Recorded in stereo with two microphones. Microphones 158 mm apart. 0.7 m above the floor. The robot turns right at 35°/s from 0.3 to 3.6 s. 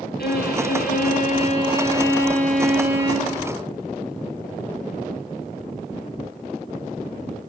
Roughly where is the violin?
Left.